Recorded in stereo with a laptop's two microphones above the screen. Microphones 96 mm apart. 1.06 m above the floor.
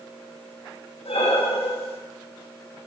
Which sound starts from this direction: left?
Breathing, at 1.1 s.